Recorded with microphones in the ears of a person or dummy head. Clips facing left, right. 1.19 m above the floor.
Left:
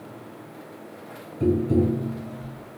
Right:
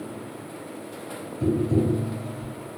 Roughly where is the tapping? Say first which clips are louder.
Left 2 dB; left.